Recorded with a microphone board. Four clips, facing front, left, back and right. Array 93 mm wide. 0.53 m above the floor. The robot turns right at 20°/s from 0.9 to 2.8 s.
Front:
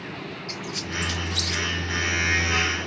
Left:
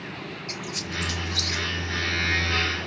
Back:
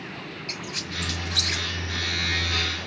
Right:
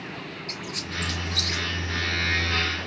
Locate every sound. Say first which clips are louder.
0.5 s a squeak: left 1 dB, front 3 dB; 165° left, 1.3 m; by 1.6 s straight behind, 1.3 m